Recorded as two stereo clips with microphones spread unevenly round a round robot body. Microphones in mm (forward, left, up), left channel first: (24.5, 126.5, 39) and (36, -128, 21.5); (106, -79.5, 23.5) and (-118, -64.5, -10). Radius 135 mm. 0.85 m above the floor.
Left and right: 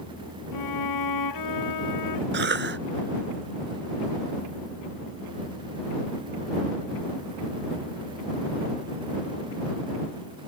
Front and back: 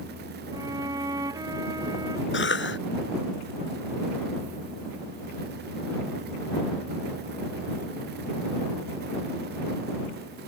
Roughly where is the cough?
Ahead right.